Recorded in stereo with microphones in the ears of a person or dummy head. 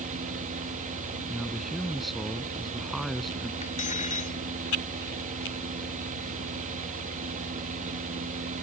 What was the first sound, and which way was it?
A fan, 40° right (ahead or behind).